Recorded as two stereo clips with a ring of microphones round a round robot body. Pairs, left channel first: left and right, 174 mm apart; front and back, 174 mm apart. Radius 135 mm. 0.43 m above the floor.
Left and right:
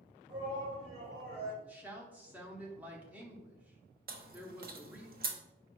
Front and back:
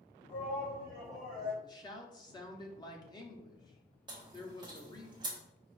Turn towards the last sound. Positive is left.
turn(degrees=-115)